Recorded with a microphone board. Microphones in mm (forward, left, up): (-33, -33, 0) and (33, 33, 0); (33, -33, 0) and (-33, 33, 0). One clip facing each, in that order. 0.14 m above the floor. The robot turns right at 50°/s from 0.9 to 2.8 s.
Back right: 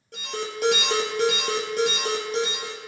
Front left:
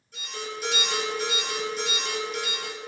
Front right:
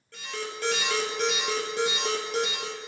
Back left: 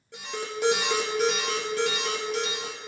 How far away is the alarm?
About 2.5 m.